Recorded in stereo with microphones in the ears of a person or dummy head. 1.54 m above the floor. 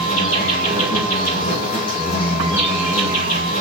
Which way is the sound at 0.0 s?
40° left (ahead or behind).